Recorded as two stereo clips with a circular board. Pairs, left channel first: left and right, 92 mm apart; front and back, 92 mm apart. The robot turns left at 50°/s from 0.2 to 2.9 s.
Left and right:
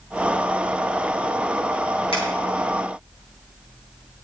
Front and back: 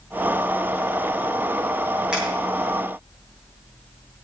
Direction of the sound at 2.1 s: 100° left.